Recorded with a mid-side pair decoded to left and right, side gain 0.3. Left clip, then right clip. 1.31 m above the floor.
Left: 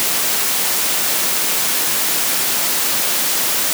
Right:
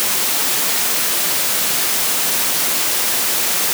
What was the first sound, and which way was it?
Only background noise.